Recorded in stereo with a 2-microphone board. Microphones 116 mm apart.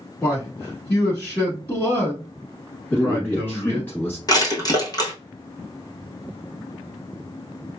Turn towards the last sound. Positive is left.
turn(degrees=35)  # may be behind; listen again after turning